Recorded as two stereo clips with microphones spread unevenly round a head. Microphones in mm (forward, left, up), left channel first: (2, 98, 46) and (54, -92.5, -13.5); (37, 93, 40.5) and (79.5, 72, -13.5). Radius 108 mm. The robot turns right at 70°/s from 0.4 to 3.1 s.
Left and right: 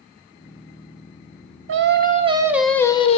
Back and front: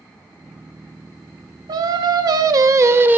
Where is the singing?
45° right, 0.6 m; by 3.2 s 55° left, 0.6 m.